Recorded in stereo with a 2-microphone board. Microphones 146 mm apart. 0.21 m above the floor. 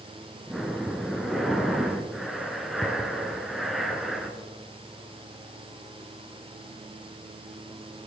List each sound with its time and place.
0.5 s breathing: centre (ahead or behind), 1.8 m